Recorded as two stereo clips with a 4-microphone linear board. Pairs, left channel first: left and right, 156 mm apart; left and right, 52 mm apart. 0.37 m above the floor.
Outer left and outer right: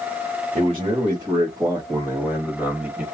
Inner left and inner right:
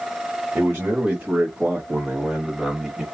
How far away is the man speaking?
About 1.8 m.